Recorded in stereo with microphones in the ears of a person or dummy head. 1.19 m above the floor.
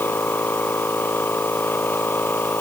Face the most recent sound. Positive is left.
turn(degrees=10)  # may be behind; listen again after turning